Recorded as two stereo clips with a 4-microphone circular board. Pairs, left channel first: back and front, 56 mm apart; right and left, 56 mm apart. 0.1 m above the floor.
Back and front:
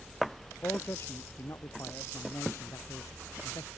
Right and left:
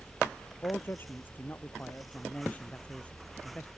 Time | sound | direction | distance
0.6 | a man speaking | 135° right | ?